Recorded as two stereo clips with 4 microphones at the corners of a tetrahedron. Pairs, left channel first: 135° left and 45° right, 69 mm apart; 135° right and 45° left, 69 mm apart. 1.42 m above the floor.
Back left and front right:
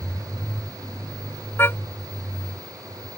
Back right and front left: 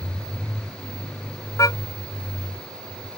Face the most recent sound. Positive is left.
turn(degrees=-170)